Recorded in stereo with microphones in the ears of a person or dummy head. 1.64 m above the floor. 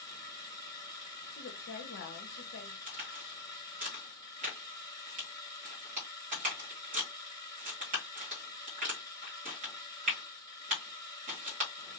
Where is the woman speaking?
50° left (ahead or behind), 0.9 m.